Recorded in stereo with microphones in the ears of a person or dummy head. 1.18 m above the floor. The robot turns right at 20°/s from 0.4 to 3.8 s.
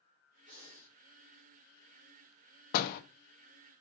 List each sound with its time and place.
0.5 s breathing: 60° right (ahead or behind), 1.1 m
2.7 s a door slam: 50° left (ahead or behind), 0.7 m; by 3.0 s 55° left (ahead or behind), 0.7 m